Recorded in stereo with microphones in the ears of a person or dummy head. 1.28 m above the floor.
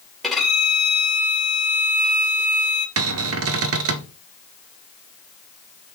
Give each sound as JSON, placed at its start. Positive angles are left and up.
{"t": 0.2, "sound": "a violin", "side_deg": 0, "distance_m": 2.0}
{"t": 3.0, "sound": "a cupboard door", "side_deg": -65, "distance_m": 0.7}